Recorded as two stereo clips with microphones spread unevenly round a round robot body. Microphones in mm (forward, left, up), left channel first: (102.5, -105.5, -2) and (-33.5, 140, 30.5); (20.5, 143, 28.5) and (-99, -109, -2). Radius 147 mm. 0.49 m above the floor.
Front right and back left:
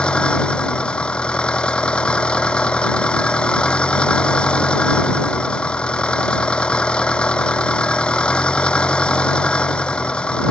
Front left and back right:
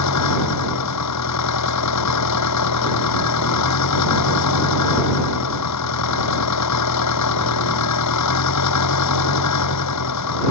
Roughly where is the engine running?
Ahead left.